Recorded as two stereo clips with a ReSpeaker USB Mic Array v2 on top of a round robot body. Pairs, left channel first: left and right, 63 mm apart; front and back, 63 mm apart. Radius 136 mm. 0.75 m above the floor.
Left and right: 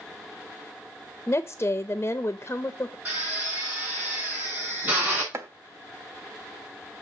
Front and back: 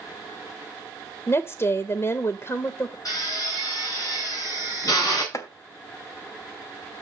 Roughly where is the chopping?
Ahead right.